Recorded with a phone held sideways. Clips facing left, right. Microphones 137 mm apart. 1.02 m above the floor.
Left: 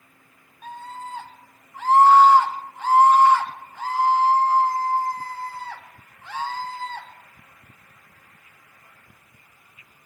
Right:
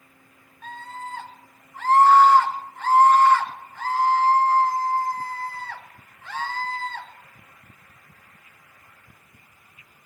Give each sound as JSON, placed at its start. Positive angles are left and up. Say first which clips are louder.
{"t": 0.6, "sound": "a scream", "louder": "left 1 dB", "side_deg": 10, "distance_m": 2.0}